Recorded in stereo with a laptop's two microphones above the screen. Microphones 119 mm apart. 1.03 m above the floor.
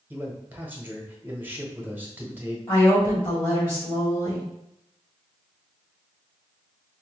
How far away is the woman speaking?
About 1.6 m.